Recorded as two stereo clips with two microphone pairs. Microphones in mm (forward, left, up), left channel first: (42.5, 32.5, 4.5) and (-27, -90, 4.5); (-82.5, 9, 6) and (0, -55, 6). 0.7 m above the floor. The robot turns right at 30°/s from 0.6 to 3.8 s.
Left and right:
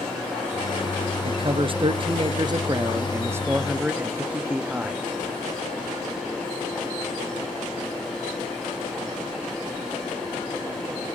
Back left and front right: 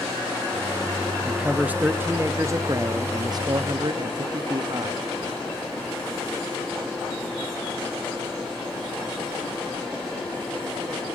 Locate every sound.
1.2 s a man speaking: 120° right, 0.6 m; by 5.0 s 45° right, 0.6 m